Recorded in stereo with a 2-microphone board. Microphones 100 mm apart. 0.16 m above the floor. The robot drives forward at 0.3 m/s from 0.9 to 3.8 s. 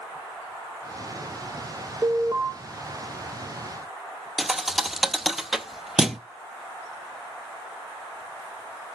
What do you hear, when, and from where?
2.0 s an alarm: 30° right (ahead or behind), 1.6 m
4.4 s a thud: 5° right (ahead or behind), 0.7 m